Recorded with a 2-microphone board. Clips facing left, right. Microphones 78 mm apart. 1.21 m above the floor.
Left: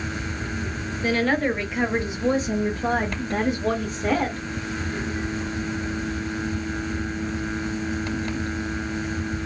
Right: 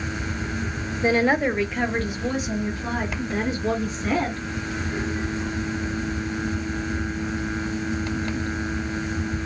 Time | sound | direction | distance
1.0 | a woman speaking | 25° right (ahead or behind) | 0.7 m